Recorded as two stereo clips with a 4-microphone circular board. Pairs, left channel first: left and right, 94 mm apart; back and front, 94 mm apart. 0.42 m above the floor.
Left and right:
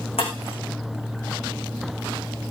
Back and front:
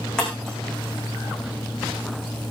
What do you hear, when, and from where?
0.2 s breaking glass: 100° left, 7.5 m